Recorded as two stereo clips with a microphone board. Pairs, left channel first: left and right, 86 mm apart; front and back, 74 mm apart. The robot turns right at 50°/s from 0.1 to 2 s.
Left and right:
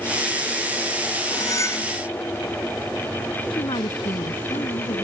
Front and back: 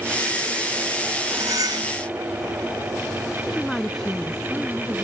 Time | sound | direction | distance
1.3 | cutlery clinking | 130° left | ?
3.5 | a woman speaking | 85° left | ?